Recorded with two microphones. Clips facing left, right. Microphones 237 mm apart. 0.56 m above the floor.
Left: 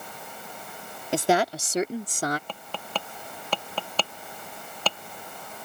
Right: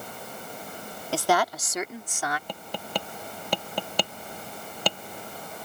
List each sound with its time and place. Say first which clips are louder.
1.1 s a woman speaking: left 2 dB; 20° left (ahead or behind); by 2.4 s 45° left (ahead or behind)
2.5 s tapping: right 2 dB; 15° right (ahead or behind)